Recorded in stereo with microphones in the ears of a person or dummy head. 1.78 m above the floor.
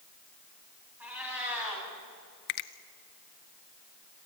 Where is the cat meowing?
5° right (ahead or behind), 4.5 m.